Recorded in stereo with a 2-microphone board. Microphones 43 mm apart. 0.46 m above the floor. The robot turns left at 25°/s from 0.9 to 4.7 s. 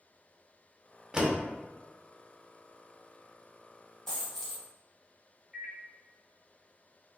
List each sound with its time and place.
1.1 s a door slam: 20° right (ahead or behind), 0.6 m; by 1.4 s 15° right (ahead or behind), 0.6 m
4.1 s a dropped coin: 5° left (ahead or behind), 1.9 m; by 4.6 s 10° right (ahead or behind), 1.9 m
5.5 s a microwave: 5° right (ahead or behind), 0.6 m